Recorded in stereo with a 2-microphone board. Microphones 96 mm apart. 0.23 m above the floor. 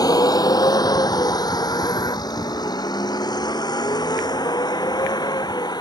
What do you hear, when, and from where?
0.0 s a vehicle: 40° left (ahead or behind); by 5.8 s 45° left (ahead or behind)